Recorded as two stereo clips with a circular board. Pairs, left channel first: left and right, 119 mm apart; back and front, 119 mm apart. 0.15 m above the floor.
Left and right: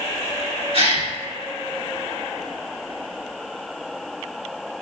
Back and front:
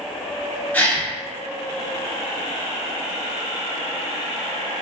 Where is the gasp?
110° right, 1.6 m.